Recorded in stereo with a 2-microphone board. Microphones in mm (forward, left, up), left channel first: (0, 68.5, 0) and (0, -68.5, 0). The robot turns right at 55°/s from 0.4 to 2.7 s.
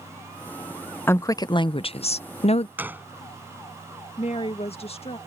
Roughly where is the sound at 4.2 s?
Left.